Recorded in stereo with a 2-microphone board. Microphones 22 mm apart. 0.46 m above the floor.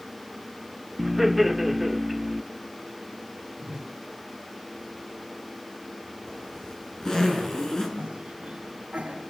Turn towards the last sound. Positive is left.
turn(degrees=-75)  # may be behind; listen again after turning